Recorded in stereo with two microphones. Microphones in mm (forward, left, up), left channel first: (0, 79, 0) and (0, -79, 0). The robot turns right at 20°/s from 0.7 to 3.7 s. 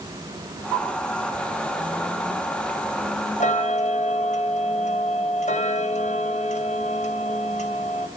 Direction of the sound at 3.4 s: 55° left (ahead or behind).